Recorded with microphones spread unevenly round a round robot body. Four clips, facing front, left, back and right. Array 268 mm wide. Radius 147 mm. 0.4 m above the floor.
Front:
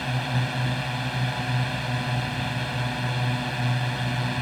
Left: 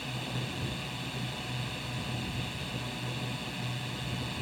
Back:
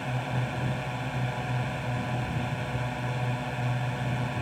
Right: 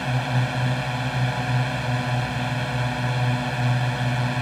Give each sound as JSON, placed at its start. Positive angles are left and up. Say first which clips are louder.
{"t": 0.0, "sound": "a drone", "louder": "right 12 dB, front 3 dB", "azimuth_deg": -65}